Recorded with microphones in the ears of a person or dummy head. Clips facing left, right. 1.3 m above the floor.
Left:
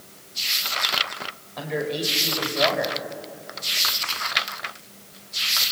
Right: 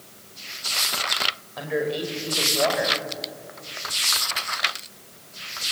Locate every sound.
1.6 s a man speaking: 5° right (ahead or behind), 4.5 m